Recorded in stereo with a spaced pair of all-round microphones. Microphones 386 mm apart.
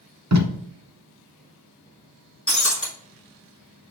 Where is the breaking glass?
35° left (ahead or behind), 1.6 m.